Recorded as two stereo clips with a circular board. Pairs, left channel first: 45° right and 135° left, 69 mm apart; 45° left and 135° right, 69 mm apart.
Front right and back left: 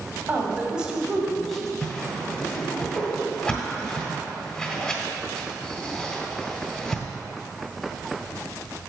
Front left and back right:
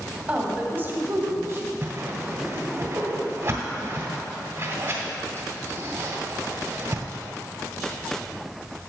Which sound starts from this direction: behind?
A woman speaking, at 0.3 s.